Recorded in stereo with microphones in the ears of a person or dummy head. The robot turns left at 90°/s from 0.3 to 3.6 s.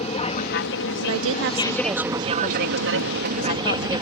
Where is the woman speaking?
80° right; by 4.0 s 50° left.